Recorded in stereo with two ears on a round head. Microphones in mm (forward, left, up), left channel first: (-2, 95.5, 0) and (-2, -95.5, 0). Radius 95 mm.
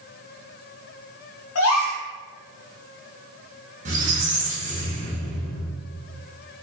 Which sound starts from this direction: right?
A squeak, at 3.9 s.